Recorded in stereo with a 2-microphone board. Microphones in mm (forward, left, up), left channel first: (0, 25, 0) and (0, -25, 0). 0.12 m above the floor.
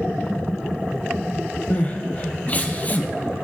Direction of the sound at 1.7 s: 35° left (ahead or behind).